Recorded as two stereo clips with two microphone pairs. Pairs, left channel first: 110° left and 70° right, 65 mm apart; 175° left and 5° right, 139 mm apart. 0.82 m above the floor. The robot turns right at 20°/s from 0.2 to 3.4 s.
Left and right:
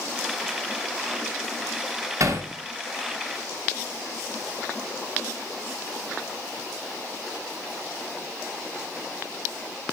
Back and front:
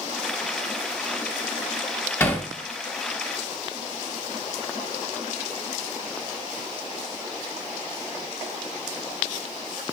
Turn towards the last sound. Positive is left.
turn(degrees=-85)